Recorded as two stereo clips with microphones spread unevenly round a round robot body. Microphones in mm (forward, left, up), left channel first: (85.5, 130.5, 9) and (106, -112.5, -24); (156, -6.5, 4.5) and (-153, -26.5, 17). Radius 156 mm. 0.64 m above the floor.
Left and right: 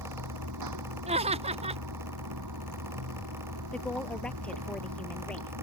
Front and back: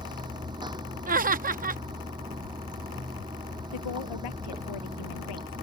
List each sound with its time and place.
0.0 s running water: 100° right
1.1 s laughter: 125° right
3.7 s a woman speaking: 10° left